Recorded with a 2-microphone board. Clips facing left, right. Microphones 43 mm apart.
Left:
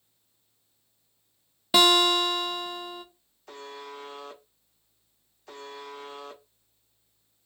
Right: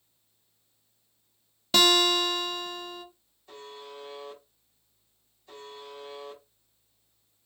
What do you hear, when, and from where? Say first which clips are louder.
1.7 s a guitar: left 2 dB; 15° left (ahead or behind), 0.6 m
3.5 s a buzzer: left 3 dB; 85° left, 0.9 m